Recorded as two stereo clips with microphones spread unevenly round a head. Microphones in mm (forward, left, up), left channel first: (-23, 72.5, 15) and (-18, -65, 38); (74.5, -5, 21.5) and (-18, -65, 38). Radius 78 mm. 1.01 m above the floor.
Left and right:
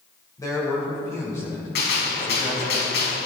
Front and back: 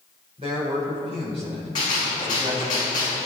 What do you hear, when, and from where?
0.4 s a man speaking: 160° left, 5.5 m; by 2.8 s 170° left, 8 m
1.8 s a gunshot: 95° left, 4.5 m